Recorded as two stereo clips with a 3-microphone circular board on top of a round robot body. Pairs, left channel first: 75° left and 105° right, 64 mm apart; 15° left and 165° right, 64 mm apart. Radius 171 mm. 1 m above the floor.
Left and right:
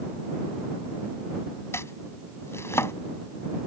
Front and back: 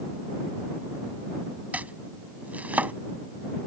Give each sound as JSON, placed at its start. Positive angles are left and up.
{"t": 1.7, "sound": "chopping", "azimuth_deg": 130}